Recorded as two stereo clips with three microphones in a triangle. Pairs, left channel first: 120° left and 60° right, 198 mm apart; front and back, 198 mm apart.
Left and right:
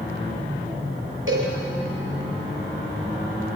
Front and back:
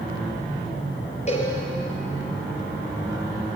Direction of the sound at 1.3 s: 55° right.